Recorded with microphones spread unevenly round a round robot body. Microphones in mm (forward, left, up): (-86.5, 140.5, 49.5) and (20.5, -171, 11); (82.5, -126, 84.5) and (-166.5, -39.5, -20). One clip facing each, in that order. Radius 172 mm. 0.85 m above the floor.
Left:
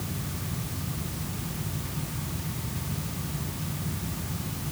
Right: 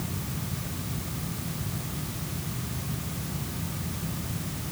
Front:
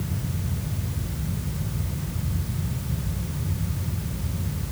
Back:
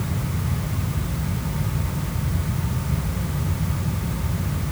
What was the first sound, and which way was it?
Only background noise.